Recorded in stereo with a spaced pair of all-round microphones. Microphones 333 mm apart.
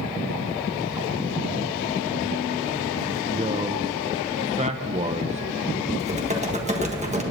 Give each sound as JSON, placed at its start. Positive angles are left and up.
{"t": 3.3, "sound": "a man speaking", "side_deg": -20, "distance_m": 0.6}
{"t": 6.0, "sound": "typing on a keyboard", "side_deg": -20, "distance_m": 1.5}